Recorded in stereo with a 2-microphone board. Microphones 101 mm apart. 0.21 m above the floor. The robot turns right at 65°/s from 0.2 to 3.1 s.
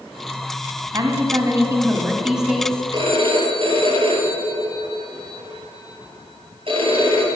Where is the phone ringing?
45° right (ahead or behind), 2.5 m; by 7.3 s 55° right (ahead or behind), 2.5 m.